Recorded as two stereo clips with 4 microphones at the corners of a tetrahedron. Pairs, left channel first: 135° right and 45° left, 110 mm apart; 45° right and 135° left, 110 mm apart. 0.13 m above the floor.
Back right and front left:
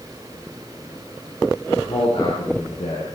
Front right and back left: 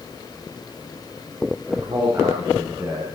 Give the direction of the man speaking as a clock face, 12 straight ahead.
6 o'clock.